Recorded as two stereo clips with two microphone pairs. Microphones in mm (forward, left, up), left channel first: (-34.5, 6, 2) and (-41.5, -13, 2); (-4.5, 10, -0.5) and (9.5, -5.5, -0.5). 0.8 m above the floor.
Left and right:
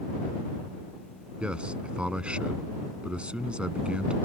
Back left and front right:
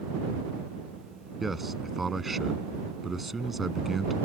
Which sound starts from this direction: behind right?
A man speaking, at 1.4 s.